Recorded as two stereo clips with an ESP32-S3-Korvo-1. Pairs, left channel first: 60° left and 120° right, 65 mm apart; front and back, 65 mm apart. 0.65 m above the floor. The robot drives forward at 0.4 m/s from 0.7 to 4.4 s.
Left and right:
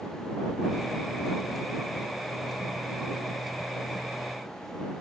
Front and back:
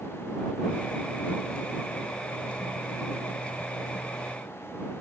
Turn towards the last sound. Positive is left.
No sound to turn to.